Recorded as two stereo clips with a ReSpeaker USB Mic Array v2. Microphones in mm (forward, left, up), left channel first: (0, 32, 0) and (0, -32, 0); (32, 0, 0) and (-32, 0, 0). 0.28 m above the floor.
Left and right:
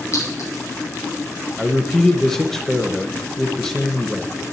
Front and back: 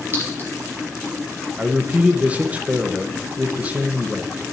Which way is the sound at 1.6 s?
165° left.